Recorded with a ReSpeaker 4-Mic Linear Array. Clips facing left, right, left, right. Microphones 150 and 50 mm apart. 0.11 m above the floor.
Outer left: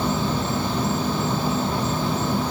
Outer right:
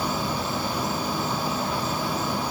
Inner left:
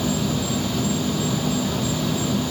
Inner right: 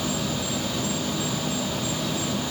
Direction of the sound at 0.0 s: 25° left (ahead or behind).